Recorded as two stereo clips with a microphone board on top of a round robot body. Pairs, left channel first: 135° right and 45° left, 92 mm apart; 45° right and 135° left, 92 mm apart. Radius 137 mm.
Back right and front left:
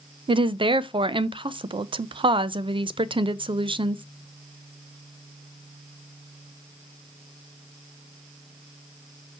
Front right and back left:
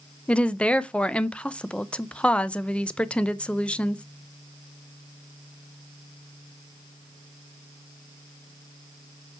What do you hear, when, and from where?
0.3 s a woman speaking: 30° left, 0.6 m